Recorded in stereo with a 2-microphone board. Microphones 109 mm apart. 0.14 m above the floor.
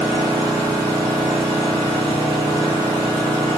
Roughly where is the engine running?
Right.